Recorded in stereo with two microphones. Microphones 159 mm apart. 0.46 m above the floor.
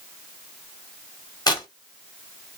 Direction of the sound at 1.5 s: 25° left (ahead or behind).